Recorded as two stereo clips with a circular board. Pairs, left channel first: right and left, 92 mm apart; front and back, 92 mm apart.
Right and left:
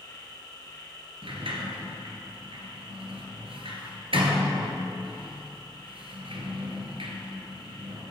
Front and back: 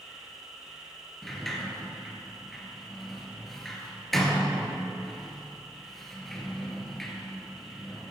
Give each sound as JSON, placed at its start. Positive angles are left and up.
{"t": 0.0, "sound": "an insect", "azimuth_deg": -100, "distance_m": 3.5}
{"t": 1.2, "sound": "a sliding door", "azimuth_deg": 85, "distance_m": 1.9}